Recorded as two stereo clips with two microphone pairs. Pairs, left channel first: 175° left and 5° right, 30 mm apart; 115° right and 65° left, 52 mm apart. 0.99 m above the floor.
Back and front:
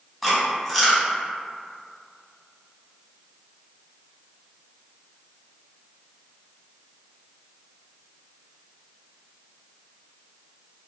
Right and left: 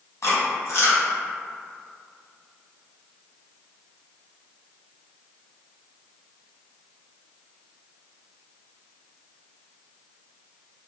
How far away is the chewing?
About 1.1 m.